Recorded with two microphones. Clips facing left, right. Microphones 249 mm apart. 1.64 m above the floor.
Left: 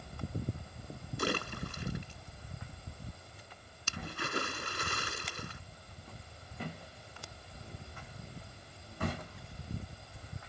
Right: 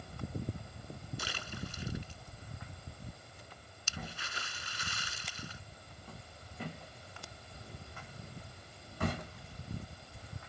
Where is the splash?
60° left (ahead or behind).